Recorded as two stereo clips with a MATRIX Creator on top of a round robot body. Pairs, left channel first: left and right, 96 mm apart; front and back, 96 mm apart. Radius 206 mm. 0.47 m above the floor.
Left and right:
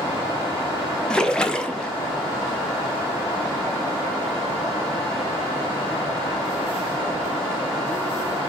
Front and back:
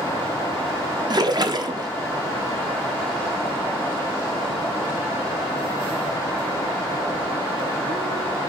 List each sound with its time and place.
1.1 s a splash: 170° left, 0.8 m